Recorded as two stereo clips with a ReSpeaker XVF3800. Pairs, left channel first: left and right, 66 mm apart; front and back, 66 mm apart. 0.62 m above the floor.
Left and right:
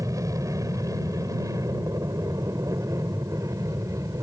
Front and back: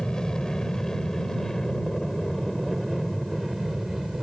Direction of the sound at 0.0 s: 75° right.